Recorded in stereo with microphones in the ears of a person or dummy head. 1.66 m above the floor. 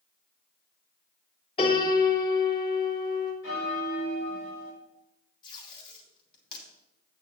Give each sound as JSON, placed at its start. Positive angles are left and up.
{"t": 1.6, "sound": "a piano", "side_deg": 30, "distance_m": 3.0}
{"t": 3.4, "sound": "a bell", "side_deg": 70, "distance_m": 4.0}
{"t": 5.4, "sound": "tape being pulled", "side_deg": 25, "distance_m": 3.0}